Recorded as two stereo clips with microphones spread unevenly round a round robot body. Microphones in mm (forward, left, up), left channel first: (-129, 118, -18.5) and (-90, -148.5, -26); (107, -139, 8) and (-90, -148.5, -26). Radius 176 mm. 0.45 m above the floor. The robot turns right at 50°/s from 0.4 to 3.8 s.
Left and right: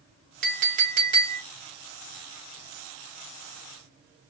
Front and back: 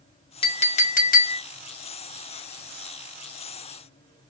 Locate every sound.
0.4 s a clink: 60° right, 0.5 m; by 1.4 s 10° right, 0.5 m